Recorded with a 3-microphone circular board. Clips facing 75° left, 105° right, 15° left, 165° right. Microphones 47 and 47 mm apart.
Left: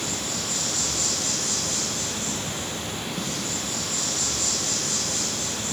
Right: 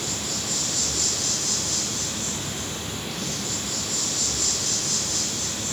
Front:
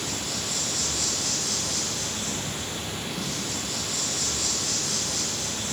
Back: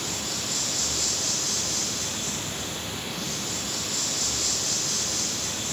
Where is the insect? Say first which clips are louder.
Left 1 dB, front 1 dB; 95° left, 4.5 m.